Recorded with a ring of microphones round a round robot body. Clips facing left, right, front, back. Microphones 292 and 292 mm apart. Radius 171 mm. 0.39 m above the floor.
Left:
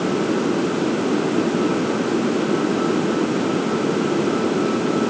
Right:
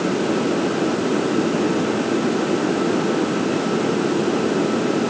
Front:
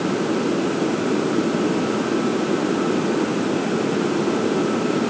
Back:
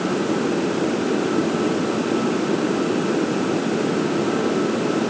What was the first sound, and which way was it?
Only background noise.